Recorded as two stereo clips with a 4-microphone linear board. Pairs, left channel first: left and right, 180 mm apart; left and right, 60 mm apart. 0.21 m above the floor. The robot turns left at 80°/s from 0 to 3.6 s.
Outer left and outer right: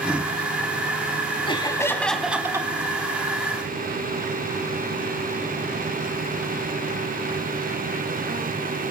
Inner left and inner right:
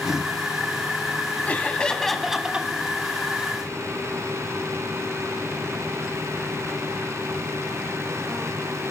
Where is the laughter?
60° left, 1.1 m; by 2.7 s 40° right, 1.1 m.